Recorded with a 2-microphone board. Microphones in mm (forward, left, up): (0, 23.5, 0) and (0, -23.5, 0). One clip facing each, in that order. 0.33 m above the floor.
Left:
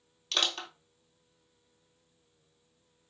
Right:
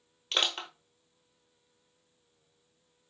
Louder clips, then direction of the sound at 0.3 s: Right 1 dB; 25° right (ahead or behind).